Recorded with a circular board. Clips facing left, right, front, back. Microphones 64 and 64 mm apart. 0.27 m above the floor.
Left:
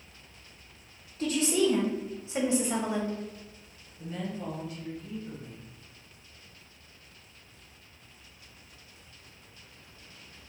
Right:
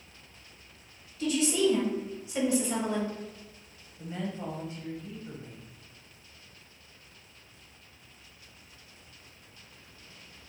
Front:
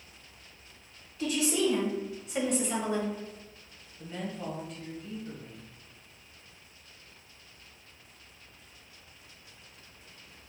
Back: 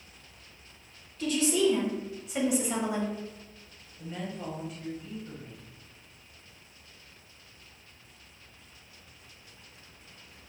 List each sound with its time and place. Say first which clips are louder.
1.2 s a woman speaking: even, back 2 dB; 70° left, 1.4 m; by 3.2 s 170° left, 0.9 m
4.0 s a woman speaking: even, even; 95° right, 1.0 m